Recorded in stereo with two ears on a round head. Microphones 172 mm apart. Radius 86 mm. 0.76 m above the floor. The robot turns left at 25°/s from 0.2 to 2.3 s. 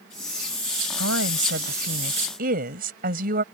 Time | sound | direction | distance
1.0 | a woman speaking | 95° right | ?